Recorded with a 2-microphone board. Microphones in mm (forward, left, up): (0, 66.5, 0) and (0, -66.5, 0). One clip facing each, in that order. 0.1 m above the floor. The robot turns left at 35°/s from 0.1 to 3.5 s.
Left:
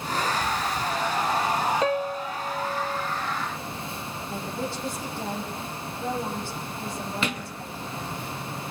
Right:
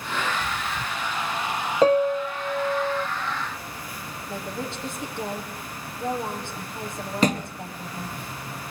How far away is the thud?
About 1.5 m.